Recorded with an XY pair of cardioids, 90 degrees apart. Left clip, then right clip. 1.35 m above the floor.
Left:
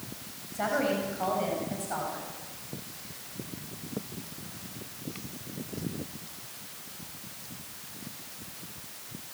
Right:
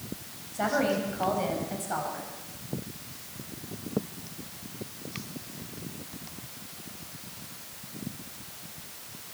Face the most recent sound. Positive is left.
turn(degrees=-20)